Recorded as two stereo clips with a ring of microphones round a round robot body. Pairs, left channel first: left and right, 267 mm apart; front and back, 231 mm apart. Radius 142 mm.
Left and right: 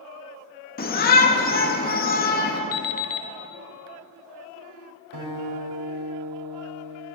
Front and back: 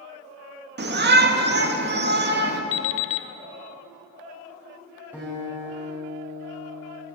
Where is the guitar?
95° right, 5.5 m.